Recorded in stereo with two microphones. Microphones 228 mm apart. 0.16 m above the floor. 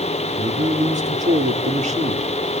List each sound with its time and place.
0.4 s a man speaking: 35° right (ahead or behind), 3.5 m